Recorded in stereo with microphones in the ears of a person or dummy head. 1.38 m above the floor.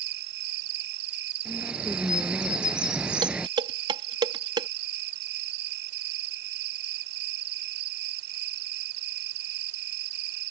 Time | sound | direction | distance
0.0 | an insect | 70° right (ahead or behind) | ?
1.4 | a bird | 5° right (ahead or behind) | ?
3.2 | dishes clattering | 25° right (ahead or behind) | ?